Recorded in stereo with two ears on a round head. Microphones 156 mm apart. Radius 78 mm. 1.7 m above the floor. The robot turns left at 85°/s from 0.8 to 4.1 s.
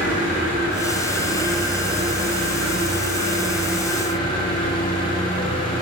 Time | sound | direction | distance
0.0 | an engine running | 70° left | 5.5 m